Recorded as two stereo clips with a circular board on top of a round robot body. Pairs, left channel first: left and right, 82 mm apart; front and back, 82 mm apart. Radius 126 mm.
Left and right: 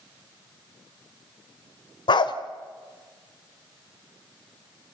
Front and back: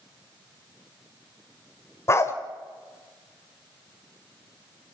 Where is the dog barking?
60° left, 1.4 m.